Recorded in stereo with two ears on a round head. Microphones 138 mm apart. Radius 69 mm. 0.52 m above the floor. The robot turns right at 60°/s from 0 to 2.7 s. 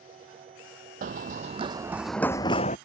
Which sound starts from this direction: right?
Running footsteps, at 1.0 s.